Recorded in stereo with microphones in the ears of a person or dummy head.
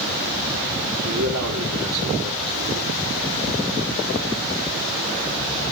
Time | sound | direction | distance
1.0 | a man speaking | 80° right | 5 m